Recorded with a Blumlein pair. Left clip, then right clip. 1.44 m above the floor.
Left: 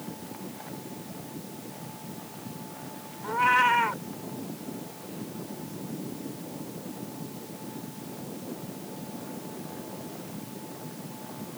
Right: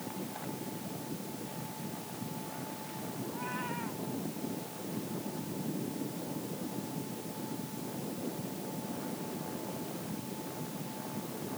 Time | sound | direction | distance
3.2 | a cat meowing | 50° left | ?